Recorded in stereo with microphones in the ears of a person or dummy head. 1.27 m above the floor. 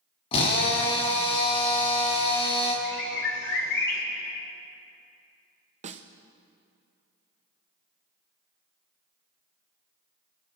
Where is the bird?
60° left (ahead or behind), 3.5 m.